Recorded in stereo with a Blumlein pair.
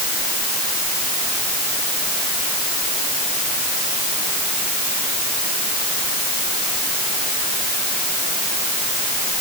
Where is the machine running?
I don't hear a machine running.